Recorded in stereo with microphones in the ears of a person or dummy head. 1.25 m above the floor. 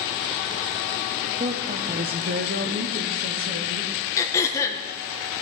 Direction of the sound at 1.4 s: 25° right (ahead or behind).